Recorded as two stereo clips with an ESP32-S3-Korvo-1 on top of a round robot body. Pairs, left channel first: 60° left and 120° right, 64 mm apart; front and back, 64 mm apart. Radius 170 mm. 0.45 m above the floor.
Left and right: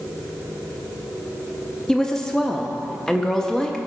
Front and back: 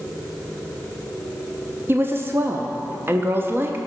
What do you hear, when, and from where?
1.9 s a woman speaking: 140° left, 1.1 m